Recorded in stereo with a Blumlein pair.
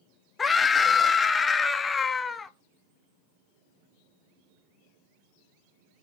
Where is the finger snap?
No finger snap in this recording.